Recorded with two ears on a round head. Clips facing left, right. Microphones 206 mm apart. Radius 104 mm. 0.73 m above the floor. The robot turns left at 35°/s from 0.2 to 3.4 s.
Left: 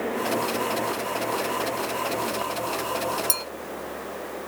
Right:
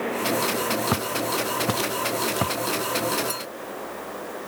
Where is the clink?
40° left (ahead or behind); by 3.5 s 35° left (ahead or behind).